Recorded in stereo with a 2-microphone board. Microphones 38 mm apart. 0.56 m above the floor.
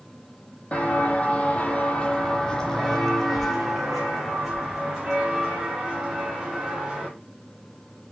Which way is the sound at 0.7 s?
40° left (ahead or behind).